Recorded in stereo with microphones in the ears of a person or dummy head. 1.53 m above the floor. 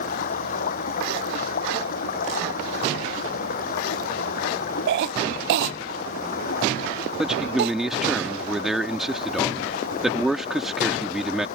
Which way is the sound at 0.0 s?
40° left (ahead or behind).